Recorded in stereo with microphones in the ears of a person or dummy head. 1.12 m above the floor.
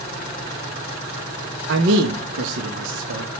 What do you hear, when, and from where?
1.7 s a man speaking: 70° right (ahead or behind), 1.2 m